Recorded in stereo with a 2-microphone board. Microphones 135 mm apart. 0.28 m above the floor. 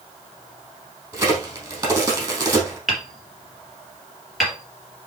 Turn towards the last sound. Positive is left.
turn(degrees=0)  # may be behind; listen again after turning